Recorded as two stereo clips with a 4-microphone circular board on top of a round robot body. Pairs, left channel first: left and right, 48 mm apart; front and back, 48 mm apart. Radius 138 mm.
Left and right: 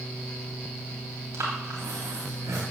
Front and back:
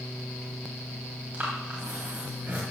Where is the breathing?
115° right, 2.5 m.